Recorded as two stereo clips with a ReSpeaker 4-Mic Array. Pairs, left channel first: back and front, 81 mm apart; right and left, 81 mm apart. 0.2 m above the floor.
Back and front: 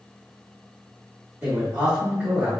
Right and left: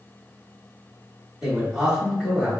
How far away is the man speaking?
About 1.7 m.